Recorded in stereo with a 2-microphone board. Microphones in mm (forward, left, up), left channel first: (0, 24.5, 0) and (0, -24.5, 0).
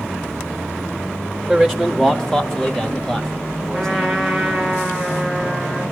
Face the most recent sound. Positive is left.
turn(degrees=0)  # may be behind; listen again after turning